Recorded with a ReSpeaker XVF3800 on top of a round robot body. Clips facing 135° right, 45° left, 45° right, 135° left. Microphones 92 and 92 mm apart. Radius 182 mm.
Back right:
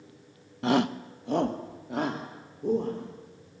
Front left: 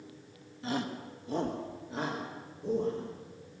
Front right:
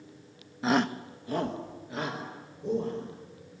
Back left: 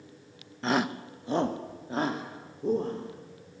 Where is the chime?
No chime in this recording.